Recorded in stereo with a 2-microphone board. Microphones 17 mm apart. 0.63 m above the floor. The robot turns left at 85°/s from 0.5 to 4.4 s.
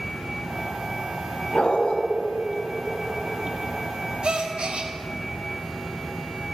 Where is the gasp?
60° right (ahead or behind), 0.7 m; by 4.9 s 70° right (ahead or behind), 0.7 m.